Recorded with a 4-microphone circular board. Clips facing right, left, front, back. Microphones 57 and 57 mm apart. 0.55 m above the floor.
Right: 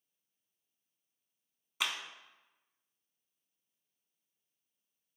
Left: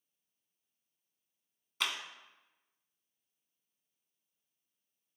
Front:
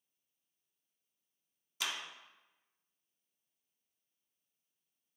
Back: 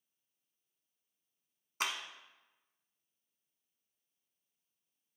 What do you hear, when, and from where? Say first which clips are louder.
1.8 s a clap: even, back 3 dB; 165° right, 0.9 m